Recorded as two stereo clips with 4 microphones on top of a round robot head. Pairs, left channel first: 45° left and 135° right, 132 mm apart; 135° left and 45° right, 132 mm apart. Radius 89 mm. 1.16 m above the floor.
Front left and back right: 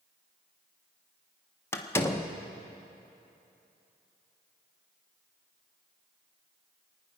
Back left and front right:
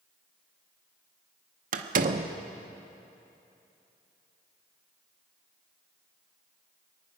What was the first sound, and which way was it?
A door slam, 25° right.